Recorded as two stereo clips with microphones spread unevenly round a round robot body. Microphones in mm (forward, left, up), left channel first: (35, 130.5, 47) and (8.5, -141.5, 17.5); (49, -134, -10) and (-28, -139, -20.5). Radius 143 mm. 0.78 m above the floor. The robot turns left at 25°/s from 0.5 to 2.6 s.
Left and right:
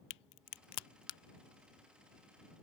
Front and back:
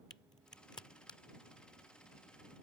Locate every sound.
0.1 s a crack: 65° left; by 1.2 s 45° left